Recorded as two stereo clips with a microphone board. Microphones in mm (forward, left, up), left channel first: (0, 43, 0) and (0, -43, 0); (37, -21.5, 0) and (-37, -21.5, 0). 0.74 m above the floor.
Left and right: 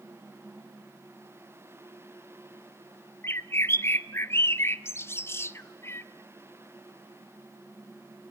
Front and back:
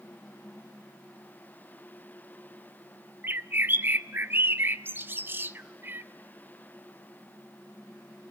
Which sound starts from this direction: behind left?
A bird, at 3.2 s.